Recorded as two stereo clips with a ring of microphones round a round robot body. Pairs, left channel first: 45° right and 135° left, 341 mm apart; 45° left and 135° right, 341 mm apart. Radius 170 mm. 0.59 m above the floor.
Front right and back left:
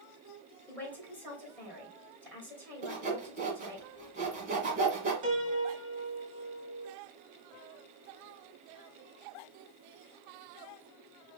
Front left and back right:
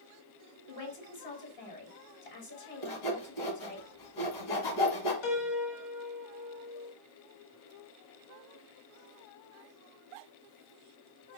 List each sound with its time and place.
0.7 s a man speaking: 40° left, 2.5 m
2.8 s sawing: 65° left, 1.7 m
5.2 s a piano: 65° left, 1.0 m